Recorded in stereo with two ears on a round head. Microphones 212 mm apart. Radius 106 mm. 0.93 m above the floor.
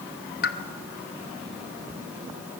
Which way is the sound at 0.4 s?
45° left (ahead or behind).